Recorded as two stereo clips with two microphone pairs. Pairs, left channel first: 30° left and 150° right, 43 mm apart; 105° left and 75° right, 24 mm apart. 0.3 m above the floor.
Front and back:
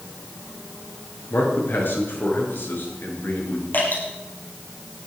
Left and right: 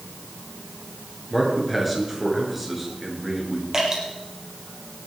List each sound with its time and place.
1.3 s a man speaking: 5° left, 5.5 m
3.7 s dripping: 5° right, 7 m